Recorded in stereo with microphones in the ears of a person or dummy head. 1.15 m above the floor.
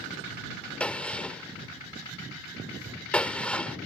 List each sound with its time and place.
0.8 s a gunshot: 5° left (ahead or behind)